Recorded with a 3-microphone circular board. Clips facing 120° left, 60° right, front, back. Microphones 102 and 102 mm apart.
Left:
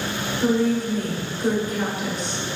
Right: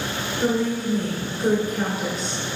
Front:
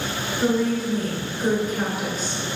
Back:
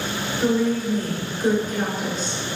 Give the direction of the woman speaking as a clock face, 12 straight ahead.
2 o'clock.